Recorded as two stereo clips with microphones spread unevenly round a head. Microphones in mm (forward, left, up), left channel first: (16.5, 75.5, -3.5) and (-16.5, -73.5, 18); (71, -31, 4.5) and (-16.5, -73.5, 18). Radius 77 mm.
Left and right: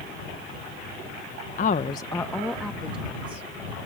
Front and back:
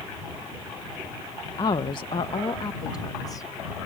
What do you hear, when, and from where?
1.6 s a woman speaking: 75° left; by 3.5 s 20° right